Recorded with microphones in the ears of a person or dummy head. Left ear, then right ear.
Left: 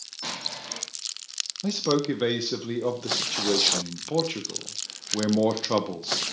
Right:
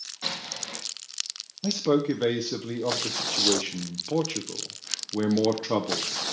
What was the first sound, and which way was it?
An explosion, 20° right (ahead or behind).